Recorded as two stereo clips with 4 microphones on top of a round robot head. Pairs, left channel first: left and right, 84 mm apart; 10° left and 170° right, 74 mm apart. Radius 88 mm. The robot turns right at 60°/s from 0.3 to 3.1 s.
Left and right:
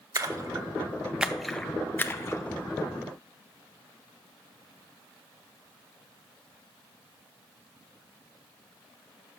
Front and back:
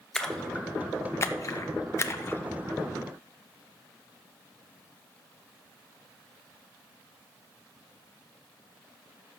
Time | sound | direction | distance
0.1 | a splash | 70° right | 0.7 m